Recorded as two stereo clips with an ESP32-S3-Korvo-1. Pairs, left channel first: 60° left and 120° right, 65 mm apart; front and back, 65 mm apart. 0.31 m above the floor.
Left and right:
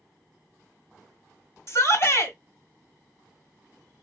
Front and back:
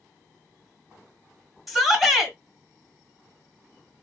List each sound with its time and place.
1.7 s a shout: 90° left, 1.6 m